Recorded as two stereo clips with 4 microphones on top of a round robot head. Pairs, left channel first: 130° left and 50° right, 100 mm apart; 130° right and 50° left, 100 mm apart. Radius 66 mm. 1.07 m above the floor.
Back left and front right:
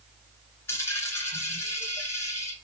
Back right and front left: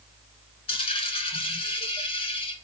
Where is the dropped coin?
165° right, 1.8 m.